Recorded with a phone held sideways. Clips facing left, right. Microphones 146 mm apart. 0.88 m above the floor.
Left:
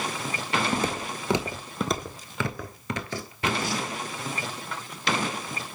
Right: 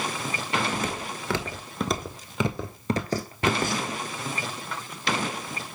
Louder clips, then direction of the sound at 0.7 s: Left 2 dB; 35° left (ahead or behind).